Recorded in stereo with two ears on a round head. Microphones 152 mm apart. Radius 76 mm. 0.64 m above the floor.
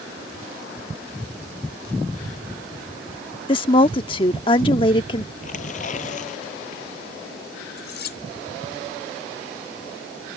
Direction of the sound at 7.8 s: 70° left (ahead or behind).